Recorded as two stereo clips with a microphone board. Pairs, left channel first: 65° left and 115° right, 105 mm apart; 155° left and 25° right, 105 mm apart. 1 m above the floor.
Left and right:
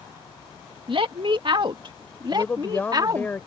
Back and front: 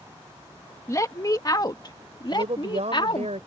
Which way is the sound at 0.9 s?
145° right.